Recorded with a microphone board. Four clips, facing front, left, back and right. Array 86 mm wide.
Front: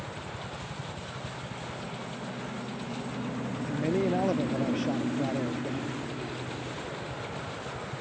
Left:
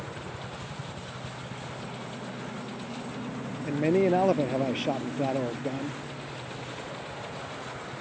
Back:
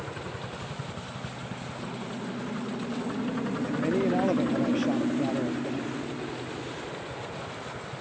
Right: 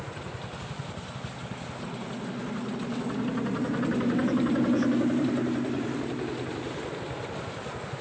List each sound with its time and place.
0.0 s a helicopter: 175° right; by 8.0 s 100° right
3.6 s a man speaking: 95° left